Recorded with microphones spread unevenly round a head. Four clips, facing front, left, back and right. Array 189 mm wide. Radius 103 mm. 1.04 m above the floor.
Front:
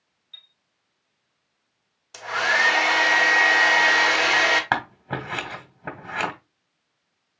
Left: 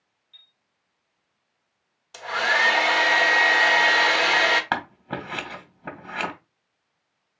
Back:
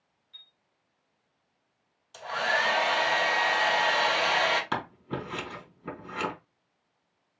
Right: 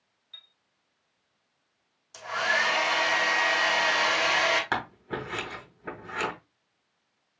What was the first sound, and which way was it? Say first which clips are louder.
A chime: right 5 dB, front 4 dB; 55° right.